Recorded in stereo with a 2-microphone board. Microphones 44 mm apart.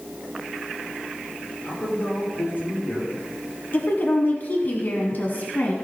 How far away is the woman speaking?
About 1.5 m.